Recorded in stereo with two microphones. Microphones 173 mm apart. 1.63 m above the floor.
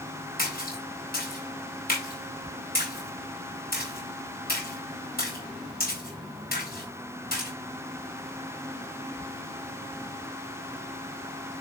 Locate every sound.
0.4 s a splash: 60° left (ahead or behind), 4 m